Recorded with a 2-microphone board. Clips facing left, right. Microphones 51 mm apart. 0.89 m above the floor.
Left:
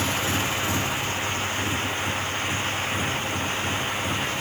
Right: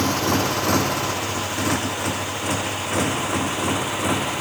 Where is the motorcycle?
60° right (ahead or behind); by 4.4 s 90° right.